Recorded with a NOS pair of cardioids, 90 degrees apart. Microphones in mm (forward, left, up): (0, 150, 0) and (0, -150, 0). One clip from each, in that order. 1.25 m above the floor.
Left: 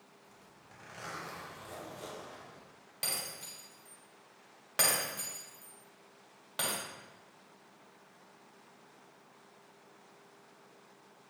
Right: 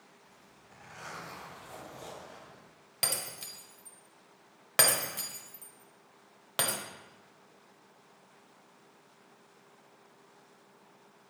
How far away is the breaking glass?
About 1.4 m.